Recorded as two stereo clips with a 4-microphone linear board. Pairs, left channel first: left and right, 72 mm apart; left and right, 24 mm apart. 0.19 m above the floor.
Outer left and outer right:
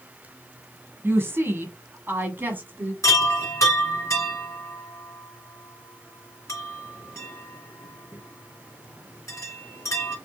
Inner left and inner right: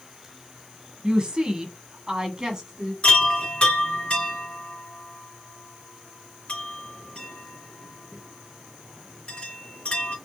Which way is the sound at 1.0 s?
30° right (ahead or behind).